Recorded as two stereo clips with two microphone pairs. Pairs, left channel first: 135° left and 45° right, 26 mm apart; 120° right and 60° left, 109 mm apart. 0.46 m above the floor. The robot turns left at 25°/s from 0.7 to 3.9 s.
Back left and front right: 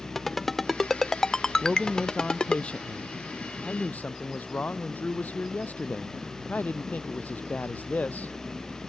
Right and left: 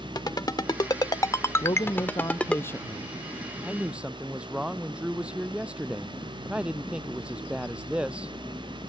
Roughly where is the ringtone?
Behind right.